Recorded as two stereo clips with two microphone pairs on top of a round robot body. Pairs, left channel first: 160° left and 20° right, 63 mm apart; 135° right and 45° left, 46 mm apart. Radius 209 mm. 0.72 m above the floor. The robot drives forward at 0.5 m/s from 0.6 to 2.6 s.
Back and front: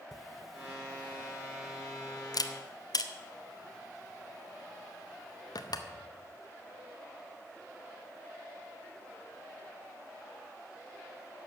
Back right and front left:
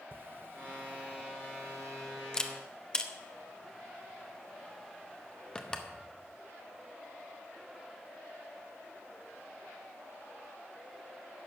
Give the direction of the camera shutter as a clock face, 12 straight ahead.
10 o'clock.